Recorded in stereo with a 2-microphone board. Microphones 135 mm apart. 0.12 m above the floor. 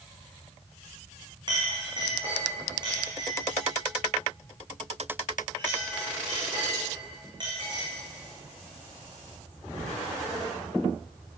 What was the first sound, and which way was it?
A clink, 30° right (ahead or behind).